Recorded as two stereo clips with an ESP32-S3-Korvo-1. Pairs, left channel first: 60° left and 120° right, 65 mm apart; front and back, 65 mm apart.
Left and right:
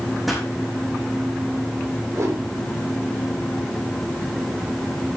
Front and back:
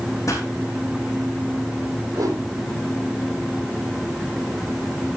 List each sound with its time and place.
0.3 s a pop: 35° right, 5 m
2.1 s a whoosh: 160° right, 6 m